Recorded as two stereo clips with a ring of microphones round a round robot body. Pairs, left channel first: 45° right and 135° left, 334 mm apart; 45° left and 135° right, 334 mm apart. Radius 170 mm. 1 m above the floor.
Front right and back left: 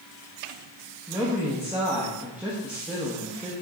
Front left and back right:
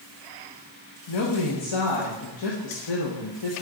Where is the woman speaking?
50° left, 1.0 m.